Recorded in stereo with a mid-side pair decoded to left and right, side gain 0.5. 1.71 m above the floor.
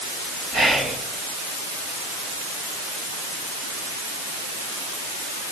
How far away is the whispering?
About 7.5 m.